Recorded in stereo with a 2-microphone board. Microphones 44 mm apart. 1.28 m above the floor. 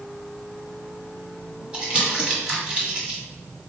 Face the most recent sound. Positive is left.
turn(degrees=-20)  # may be behind; listen again after turning